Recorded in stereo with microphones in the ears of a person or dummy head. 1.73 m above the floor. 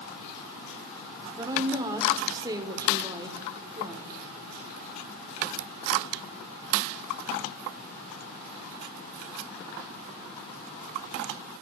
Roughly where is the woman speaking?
Centre.